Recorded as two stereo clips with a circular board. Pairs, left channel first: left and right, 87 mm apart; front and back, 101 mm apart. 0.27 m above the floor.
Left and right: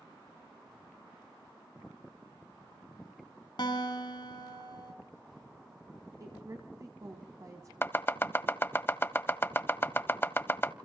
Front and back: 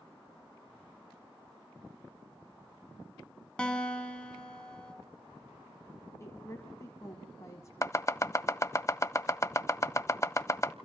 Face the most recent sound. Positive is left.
turn(degrees=40)